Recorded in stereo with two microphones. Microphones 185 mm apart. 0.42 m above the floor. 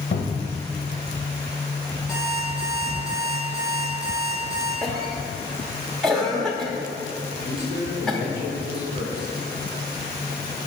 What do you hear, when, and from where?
0.1 s a cupboard door: 70° left (ahead or behind), 0.8 m
2.1 s an alarm clock: 5° right (ahead or behind), 2.5 m
4.8 s a cough: centre (ahead or behind), 0.8 m
7.5 s a man speaking: 65° left (ahead or behind), 3 m